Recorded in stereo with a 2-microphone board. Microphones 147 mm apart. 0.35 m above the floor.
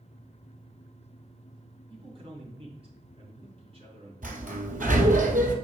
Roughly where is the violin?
No violin in this recording.